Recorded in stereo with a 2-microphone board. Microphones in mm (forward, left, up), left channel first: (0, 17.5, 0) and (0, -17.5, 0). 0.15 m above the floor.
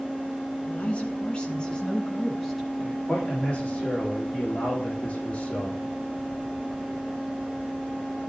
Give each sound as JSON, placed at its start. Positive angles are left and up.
{"t": 0.7, "sound": "a woman speaking", "side_deg": 45, "distance_m": 1.6}
{"t": 3.1, "sound": "a man speaking", "side_deg": 50, "distance_m": 6.5}